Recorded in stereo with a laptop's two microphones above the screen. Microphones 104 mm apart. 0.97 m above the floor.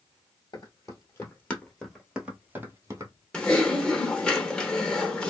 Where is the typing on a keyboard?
10° left (ahead or behind), 0.6 m.